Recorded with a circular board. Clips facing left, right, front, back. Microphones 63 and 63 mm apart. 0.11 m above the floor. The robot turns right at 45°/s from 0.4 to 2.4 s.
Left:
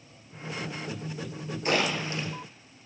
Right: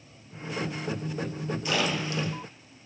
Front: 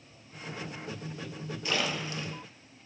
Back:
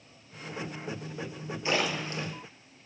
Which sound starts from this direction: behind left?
A splash, at 1.6 s.